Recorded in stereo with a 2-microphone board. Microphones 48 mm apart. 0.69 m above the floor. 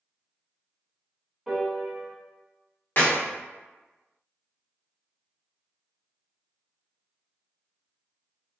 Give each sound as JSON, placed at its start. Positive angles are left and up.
{"t": 1.5, "sound": "a piano", "side_deg": -10, "distance_m": 0.8}
{"t": 3.0, "sound": "a clap", "side_deg": 45, "distance_m": 1.1}